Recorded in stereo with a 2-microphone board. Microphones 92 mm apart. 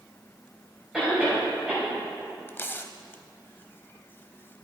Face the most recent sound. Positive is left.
turn(degrees=25)  # may be behind; listen again after turning